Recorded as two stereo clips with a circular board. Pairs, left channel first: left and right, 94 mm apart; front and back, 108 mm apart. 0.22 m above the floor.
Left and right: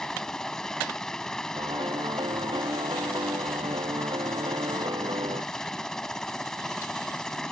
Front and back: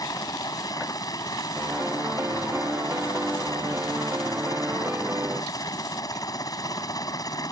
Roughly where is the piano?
Right.